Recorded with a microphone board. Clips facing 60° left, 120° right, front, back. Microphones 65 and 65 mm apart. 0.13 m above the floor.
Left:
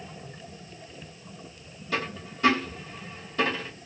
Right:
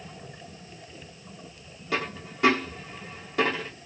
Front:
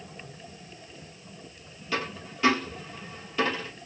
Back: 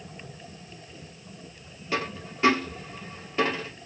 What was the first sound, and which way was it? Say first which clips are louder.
A dropped coin: right 1 dB, back 2 dB; 120° right.